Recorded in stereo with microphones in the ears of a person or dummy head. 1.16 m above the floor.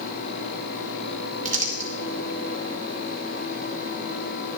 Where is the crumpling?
40° right (ahead or behind), 1.3 m.